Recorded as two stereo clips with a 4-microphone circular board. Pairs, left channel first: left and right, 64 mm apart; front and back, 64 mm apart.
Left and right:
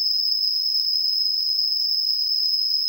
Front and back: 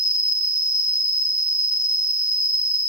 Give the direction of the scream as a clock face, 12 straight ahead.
No scream in this recording.